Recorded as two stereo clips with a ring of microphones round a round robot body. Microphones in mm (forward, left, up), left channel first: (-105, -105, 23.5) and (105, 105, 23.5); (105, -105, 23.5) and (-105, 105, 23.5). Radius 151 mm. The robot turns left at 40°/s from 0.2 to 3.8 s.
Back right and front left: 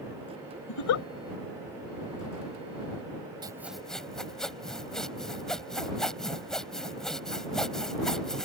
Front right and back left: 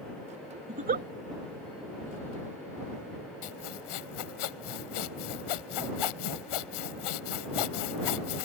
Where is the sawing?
30° right; by 8.5 s 45° right.